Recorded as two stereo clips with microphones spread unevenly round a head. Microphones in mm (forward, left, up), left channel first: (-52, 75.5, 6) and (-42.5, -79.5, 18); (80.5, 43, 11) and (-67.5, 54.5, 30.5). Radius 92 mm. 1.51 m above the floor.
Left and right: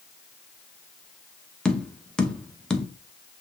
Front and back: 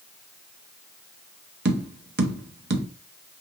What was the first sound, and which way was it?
Tapping, straight behind.